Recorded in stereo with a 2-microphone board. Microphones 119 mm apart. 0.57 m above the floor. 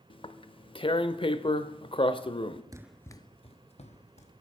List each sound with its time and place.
0.1 s tearing paper: 45° left (ahead or behind), 0.5 m
2.7 s running footsteps: 30° right (ahead or behind), 0.5 m; by 4.3 s 65° left (ahead or behind), 2 m